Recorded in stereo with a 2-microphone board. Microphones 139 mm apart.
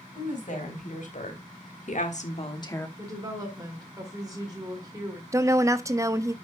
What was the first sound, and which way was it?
A woman speaking, 65° left (ahead or behind).